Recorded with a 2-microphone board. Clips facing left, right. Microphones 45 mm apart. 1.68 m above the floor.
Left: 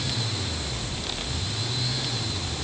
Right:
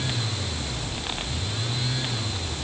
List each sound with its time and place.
Only background noise.